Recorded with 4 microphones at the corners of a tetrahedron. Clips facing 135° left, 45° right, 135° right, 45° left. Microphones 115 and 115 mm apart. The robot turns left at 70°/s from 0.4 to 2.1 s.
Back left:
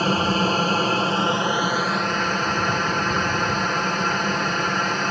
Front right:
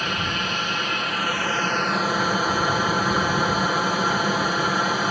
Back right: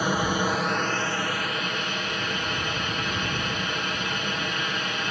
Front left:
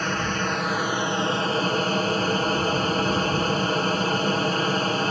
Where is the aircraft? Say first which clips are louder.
Back left 7 dB, back right 2 dB; 155° left; by 5.1 s 35° left.